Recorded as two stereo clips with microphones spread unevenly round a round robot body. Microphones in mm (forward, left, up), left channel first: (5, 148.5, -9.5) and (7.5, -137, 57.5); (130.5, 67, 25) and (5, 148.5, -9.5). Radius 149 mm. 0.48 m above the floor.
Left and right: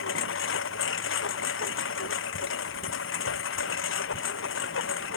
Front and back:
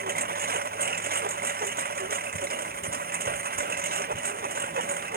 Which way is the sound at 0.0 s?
140° left.